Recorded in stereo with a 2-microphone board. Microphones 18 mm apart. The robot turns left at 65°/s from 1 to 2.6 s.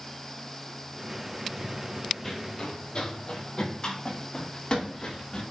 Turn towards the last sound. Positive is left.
turn(degrees=50)  # may be behind; listen again after turning